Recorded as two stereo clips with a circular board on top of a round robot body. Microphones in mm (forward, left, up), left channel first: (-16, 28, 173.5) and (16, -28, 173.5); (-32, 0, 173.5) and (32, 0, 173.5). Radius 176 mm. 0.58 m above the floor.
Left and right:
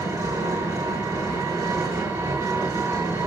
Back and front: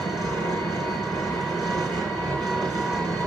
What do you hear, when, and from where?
0.0 s an engine running: 90° right, 5.5 m